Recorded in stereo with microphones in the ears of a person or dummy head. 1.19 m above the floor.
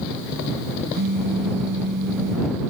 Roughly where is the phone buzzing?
Right.